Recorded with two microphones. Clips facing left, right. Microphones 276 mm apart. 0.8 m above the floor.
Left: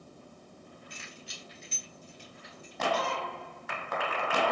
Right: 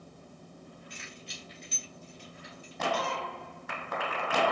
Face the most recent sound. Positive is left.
turn(degrees=65)  # may be behind; listen again after turning